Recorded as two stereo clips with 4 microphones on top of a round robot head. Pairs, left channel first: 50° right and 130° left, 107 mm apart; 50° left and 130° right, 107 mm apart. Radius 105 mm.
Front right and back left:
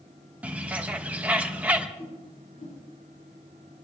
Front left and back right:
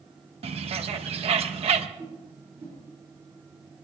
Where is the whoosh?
65° right, 8 m.